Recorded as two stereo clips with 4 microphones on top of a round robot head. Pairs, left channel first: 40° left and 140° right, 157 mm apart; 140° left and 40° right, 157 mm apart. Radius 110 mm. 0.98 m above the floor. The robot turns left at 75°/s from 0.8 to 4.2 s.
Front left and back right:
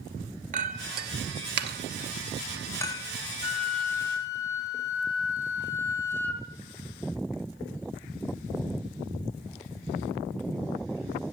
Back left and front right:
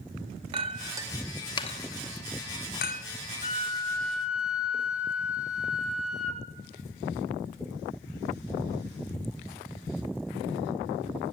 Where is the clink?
95° right, 0.8 m; by 3.0 s 95° left, 0.8 m.